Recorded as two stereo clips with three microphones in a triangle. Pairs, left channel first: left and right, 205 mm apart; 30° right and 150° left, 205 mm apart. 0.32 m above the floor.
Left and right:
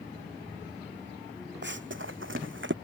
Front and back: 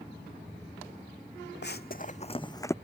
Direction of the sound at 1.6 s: 60° right.